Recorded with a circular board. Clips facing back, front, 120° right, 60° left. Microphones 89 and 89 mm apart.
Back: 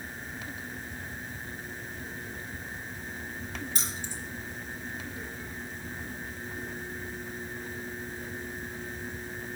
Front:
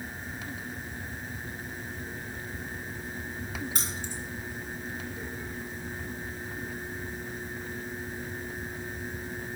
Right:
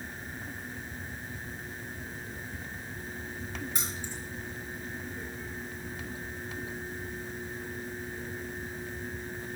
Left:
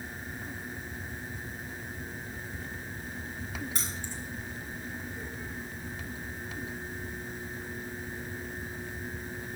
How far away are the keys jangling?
About 3.5 m.